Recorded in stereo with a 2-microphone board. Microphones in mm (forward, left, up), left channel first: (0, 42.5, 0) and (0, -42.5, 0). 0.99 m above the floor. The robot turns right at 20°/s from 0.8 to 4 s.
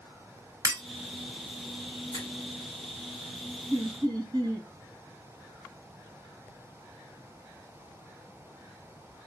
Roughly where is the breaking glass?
Right.